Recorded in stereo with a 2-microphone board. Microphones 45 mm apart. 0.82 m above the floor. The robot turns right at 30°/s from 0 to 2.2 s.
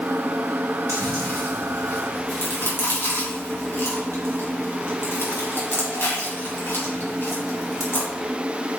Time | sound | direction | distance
0.9 | chewing | 75° left (ahead or behind) | 3 m